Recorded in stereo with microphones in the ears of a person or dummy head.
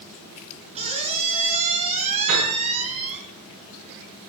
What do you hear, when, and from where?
0.8 s a squeak: 35° right (ahead or behind), 2 m
2.3 s a piano: 45° right (ahead or behind), 5.5 m